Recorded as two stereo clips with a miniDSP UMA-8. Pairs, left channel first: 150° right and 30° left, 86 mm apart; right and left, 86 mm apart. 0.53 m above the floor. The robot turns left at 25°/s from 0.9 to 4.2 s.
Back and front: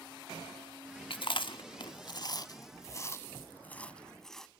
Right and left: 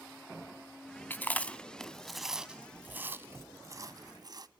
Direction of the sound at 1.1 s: 155° right.